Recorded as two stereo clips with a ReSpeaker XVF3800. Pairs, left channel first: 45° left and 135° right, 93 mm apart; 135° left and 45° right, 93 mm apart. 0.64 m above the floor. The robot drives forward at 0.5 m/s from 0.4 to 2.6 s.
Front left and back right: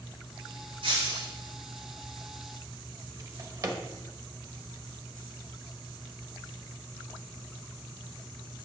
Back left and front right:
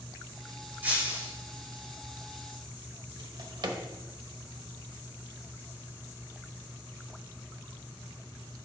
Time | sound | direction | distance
0.8 | breaking glass | 115° right | 4.5 m
3.2 | a drawer | 85° right | 1.0 m